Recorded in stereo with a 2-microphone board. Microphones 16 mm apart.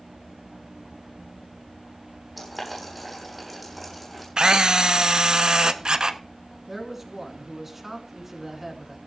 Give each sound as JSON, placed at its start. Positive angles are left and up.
{"t": 2.4, "sound": "boiling", "side_deg": 0, "distance_m": 7.5}
{"t": 4.4, "sound": "a camera shutter", "side_deg": -50, "distance_m": 0.7}
{"t": 6.7, "sound": "a man speaking", "side_deg": -20, "distance_m": 2.5}